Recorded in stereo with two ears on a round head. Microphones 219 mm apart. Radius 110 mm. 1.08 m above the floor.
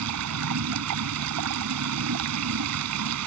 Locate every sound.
0.0 s running water: 70° right (ahead or behind)